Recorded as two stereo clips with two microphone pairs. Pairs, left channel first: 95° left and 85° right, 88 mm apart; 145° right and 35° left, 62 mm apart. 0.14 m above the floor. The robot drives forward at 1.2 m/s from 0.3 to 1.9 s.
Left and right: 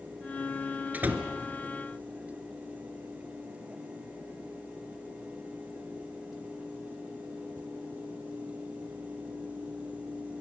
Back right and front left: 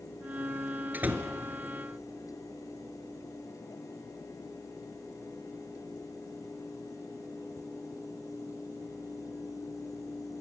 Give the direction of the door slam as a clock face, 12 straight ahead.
1 o'clock.